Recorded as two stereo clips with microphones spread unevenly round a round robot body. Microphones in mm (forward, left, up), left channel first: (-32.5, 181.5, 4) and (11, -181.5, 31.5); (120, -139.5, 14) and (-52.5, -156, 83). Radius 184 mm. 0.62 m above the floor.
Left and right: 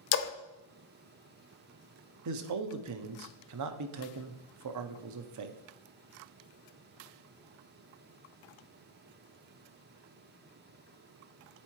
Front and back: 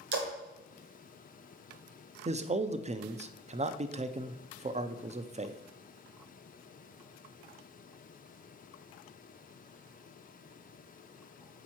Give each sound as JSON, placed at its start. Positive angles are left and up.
{"t": 0.1, "sound": "a splash", "azimuth_deg": 150, "distance_m": 0.7}
{"t": 2.2, "sound": "a man speaking", "azimuth_deg": -105, "distance_m": 0.7}